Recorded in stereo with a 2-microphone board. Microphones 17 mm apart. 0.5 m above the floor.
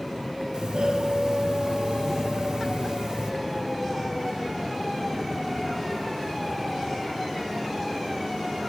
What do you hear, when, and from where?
0.5 s a doorbell: 65° right (ahead or behind), 3 m